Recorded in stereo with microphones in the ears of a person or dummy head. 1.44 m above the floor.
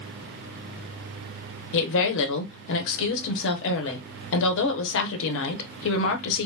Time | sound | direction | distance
1.7 | a woman speaking | 75° left (ahead or behind) | 0.9 m